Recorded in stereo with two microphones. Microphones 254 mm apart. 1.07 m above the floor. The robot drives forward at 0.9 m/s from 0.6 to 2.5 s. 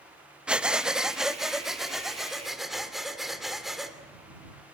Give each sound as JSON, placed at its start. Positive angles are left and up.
{"t": 0.5, "sound": "breathing", "side_deg": -5, "distance_m": 0.6}